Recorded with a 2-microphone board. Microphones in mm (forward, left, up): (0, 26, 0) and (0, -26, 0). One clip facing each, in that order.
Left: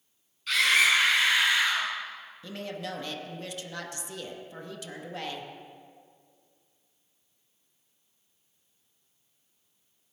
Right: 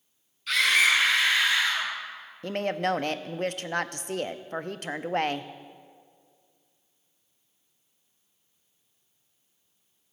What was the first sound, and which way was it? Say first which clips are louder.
A scream: right 1 dB; centre (ahead or behind).